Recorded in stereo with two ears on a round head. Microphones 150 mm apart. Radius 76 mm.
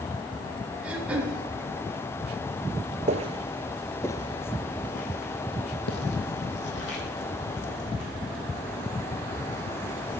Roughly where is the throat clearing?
Centre.